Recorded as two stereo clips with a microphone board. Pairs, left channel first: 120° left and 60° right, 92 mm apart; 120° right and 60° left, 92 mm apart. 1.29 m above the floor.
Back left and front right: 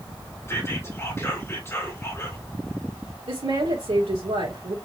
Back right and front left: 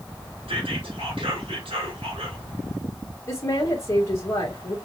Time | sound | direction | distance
0.5 | whispering | 55° left | 3 m
3.3 | a woman speaking | 65° right | 1.9 m